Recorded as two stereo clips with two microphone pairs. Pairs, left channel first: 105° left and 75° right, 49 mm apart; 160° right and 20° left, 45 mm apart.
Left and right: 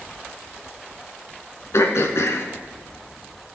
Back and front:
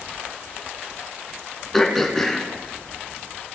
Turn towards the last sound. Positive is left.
turn(degrees=120)